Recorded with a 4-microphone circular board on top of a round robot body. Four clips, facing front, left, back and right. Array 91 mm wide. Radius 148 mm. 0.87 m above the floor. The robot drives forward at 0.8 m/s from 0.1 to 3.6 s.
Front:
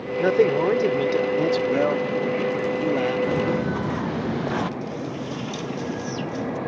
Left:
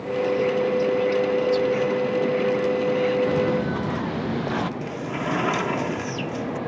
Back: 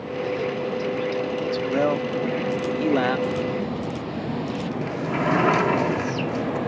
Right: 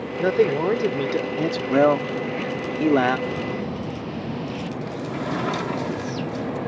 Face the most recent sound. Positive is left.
turn(degrees=170)